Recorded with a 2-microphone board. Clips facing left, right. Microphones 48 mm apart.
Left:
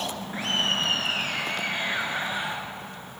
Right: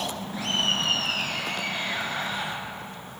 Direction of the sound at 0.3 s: 35° left (ahead or behind).